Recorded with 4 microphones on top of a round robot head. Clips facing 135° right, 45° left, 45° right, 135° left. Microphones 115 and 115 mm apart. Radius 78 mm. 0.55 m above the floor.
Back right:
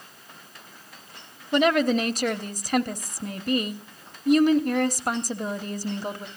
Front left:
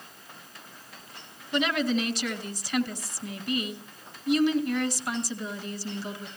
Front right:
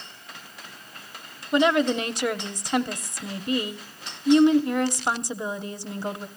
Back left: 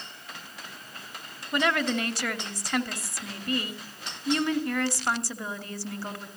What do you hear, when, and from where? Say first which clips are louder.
1.5 s a woman speaking: back right 6 dB, front right 6 dB; 110° right, 1.1 m